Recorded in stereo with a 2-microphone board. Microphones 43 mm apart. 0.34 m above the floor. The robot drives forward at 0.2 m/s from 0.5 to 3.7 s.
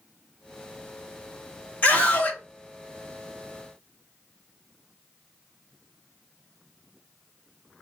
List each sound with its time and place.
1.8 s a scream: 40° left (ahead or behind), 1.9 m